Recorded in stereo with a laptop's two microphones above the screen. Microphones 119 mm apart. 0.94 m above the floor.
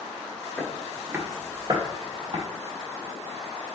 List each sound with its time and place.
0.6 s footsteps: 10° left (ahead or behind), 0.9 m; by 2.4 s 45° right (ahead or behind), 1.8 m